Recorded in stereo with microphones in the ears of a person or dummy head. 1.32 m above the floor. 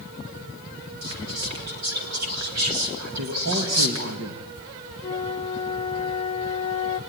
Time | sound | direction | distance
1.0 | whispering | 80° right | 3.5 m
3.2 | a man speaking | 55° right (ahead or behind) | 2.5 m
5.0 | a flute | 30° left (ahead or behind) | 0.9 m